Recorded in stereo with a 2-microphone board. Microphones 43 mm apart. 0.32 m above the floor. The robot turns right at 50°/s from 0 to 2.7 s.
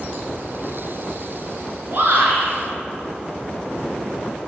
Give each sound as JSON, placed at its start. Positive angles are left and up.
{"t": 1.9, "sound": "a shout", "azimuth_deg": -130, "distance_m": 4.0}